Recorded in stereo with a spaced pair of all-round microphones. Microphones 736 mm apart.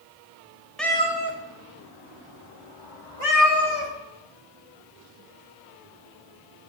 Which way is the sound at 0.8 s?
Centre (ahead or behind).